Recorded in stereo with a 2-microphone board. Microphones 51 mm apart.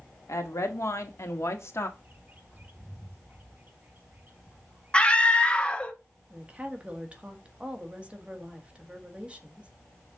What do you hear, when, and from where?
0.3 s a woman speaking: 75° left (ahead or behind), 1.7 m; by 1.9 s 55° left (ahead or behind), 1.5 m
2.0 s a bird: 35° right (ahead or behind), 1.1 m
4.9 s a scream: 20° left (ahead or behind), 1.3 m
6.3 s a woman speaking: 25° right (ahead or behind), 1.5 m